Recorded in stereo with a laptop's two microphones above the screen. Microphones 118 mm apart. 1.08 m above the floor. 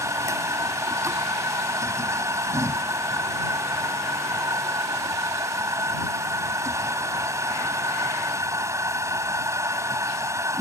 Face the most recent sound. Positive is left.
turn(degrees=-25)  # may be behind; listen again after turning